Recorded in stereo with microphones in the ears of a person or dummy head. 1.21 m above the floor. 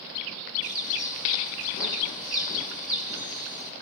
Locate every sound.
0.6 s a bird: centre (ahead or behind), 2.0 m